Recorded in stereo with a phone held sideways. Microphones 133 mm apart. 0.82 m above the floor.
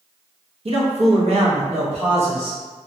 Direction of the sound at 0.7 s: 55° right (ahead or behind).